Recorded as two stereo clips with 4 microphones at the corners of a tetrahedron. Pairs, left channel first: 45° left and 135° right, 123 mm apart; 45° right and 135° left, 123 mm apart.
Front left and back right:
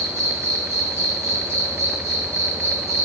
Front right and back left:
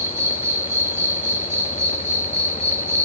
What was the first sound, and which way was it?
An insect, 175° right.